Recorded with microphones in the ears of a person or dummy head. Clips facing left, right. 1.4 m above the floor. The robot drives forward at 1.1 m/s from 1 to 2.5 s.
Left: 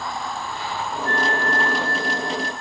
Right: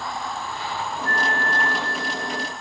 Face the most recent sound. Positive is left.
turn(degrees=-20)  # may be behind; listen again after turning